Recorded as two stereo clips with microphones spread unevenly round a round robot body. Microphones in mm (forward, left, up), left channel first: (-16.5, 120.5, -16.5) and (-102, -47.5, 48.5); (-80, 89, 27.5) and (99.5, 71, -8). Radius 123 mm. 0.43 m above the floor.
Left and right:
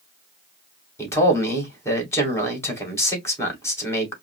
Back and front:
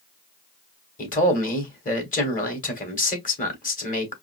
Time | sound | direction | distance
1.0 | a man speaking | 130° left | 2.5 m